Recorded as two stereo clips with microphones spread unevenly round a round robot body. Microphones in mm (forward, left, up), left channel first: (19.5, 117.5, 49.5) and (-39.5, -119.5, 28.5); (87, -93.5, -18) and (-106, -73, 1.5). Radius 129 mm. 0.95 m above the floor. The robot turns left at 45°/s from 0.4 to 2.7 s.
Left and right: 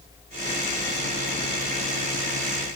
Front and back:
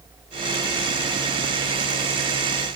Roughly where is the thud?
No thud in this recording.